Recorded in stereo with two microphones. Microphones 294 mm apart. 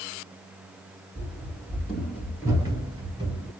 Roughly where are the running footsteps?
Centre.